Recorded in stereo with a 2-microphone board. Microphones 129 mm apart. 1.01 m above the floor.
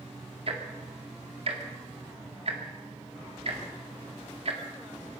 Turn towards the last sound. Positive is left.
turn(degrees=-50)  # may be behind; listen again after turning